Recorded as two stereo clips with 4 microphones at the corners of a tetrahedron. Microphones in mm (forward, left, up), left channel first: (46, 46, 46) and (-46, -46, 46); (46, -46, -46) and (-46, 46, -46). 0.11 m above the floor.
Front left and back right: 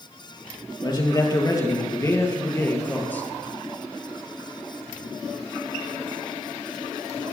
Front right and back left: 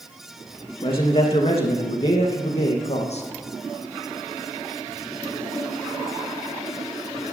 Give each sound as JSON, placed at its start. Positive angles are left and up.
{"t": 0.8, "sound": "a man speaking", "azimuth_deg": -10, "distance_m": 3.0}